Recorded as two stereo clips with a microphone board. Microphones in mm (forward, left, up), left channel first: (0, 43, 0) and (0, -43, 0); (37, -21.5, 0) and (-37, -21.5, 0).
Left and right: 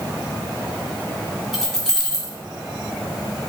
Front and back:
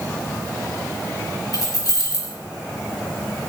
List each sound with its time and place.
1.5 s keys jangling: 5° left, 1.6 m